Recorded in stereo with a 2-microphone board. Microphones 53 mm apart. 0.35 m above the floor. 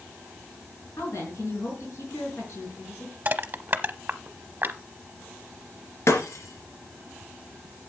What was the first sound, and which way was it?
A woman speaking, 75° left (ahead or behind).